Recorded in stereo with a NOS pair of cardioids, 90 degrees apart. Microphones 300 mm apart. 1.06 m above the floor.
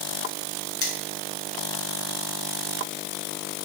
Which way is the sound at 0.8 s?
50° left.